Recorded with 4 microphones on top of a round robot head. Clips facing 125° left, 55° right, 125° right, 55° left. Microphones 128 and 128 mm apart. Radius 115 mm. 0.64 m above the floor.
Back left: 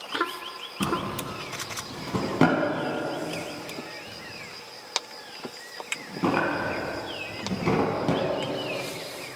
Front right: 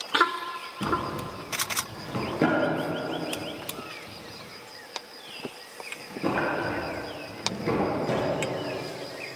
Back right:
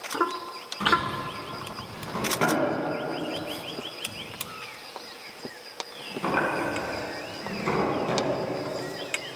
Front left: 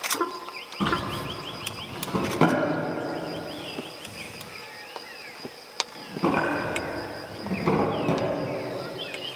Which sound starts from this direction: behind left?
A drawer, at 0.8 s.